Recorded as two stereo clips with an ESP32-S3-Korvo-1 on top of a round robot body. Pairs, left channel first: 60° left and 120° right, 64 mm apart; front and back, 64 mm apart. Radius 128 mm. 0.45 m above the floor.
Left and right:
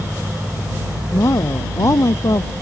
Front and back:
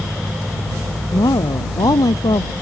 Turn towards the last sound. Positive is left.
turn(degrees=15)